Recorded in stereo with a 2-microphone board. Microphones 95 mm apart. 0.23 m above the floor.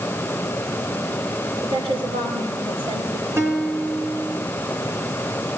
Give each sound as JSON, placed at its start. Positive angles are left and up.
{"t": 1.6, "sound": "a woman speaking", "side_deg": -75, "distance_m": 6.0}
{"t": 3.4, "sound": "a guitar", "side_deg": -25, "distance_m": 4.0}